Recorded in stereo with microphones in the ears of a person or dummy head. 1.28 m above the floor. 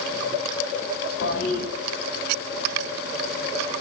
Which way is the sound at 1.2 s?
55° left (ahead or behind).